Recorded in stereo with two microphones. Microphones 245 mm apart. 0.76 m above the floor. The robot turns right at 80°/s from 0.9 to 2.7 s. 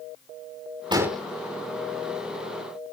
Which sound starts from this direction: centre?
An explosion, at 0.9 s.